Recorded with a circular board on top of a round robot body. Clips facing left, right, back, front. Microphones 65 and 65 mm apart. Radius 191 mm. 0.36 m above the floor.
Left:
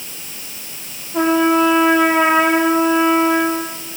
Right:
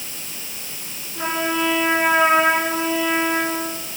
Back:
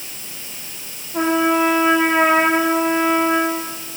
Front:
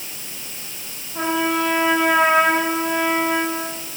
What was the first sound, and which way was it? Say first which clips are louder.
A trumpet: left 9 dB, back 4 dB; 130° left.